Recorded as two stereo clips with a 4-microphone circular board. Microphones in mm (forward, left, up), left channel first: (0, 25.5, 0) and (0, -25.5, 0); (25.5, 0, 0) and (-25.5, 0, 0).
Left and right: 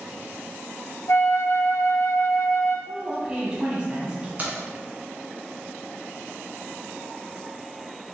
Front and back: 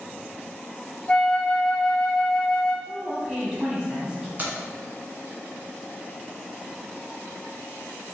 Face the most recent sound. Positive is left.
turn(degrees=-135)